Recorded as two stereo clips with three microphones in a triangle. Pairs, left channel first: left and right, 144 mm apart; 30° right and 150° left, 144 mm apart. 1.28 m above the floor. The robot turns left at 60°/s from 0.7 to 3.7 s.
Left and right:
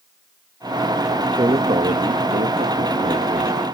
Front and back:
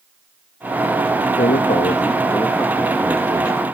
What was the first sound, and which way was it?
A man speaking, 30° right.